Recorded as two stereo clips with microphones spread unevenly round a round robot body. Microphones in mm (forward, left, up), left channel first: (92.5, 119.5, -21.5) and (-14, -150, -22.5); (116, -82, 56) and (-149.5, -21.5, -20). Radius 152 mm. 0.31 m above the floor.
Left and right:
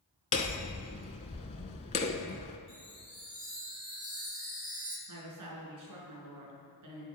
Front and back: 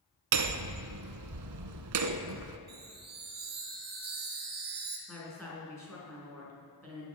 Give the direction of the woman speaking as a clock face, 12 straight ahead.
3 o'clock.